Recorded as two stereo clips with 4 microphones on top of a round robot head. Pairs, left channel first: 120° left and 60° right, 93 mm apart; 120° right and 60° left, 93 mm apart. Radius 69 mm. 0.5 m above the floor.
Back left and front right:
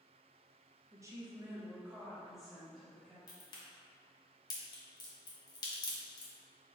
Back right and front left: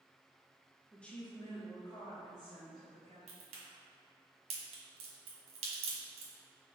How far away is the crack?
About 1.3 m.